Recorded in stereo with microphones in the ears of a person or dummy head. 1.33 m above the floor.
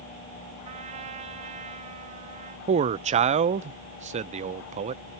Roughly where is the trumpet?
Right.